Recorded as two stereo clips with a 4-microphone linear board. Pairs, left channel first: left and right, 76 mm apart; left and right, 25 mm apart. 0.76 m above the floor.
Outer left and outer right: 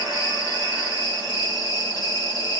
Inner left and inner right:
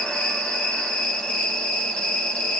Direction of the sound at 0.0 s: 55° left (ahead or behind).